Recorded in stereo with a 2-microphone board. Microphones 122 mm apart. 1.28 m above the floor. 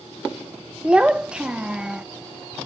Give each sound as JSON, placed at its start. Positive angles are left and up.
{"t": 0.8, "sound": "a child speaking", "side_deg": -10, "distance_m": 0.6}